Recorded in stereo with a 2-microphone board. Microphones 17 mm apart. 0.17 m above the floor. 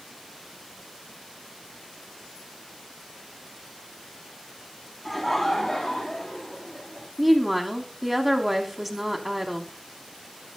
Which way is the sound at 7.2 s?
5° right (ahead or behind).